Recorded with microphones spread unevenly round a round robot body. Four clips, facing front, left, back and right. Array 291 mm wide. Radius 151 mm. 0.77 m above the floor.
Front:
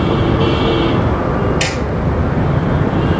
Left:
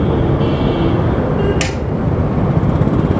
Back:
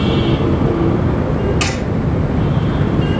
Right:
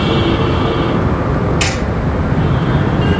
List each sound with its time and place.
1.6 s hammering: 85° left, 1.9 m